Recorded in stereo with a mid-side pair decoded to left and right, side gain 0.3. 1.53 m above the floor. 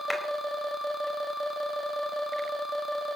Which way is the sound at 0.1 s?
15° left.